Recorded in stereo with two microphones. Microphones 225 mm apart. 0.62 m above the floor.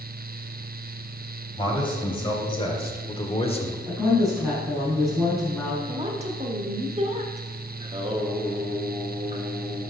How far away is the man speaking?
About 2.5 m.